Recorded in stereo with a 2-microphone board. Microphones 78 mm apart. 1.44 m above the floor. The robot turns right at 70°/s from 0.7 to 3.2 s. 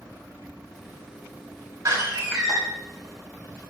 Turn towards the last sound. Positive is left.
turn(degrees=45)